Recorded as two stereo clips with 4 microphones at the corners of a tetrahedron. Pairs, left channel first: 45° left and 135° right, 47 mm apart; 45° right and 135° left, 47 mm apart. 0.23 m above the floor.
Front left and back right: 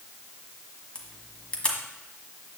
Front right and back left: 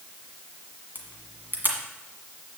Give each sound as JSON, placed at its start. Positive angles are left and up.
{"t": 0.9, "sound": "a camera shutter", "azimuth_deg": 105, "distance_m": 1.4}